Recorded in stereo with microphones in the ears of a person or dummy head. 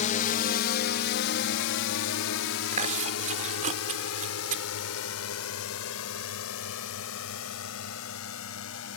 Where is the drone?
45° left (ahead or behind); by 9.0 s 70° left (ahead or behind).